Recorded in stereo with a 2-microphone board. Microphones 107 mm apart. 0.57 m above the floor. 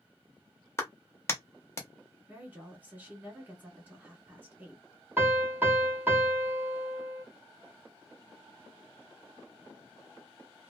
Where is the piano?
20° right (ahead or behind), 1.3 m.